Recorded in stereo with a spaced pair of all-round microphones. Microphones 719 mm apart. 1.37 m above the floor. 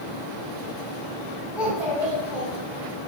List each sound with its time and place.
1.6 s a child speaking: centre (ahead or behind), 1.4 m